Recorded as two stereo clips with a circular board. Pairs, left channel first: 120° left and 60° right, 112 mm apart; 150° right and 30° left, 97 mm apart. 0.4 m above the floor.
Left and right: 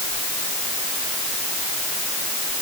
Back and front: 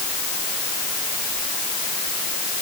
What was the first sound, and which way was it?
Only background noise.